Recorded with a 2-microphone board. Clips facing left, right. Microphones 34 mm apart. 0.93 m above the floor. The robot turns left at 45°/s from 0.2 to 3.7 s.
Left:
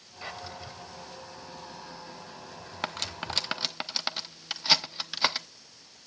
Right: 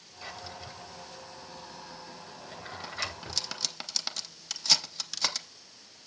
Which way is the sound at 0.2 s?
15° left (ahead or behind).